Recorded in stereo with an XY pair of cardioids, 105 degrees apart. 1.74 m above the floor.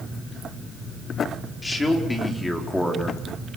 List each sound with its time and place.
1.6 s a man speaking: 25° left, 5.5 m; by 3.2 s 5° left, 4.5 m